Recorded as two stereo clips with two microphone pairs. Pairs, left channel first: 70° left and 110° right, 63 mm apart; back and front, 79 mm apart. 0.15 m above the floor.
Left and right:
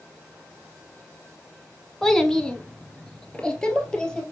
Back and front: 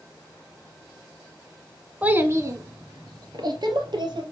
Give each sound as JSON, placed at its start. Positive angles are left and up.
{"t": 2.0, "sound": "a child speaking", "azimuth_deg": 5, "distance_m": 0.7}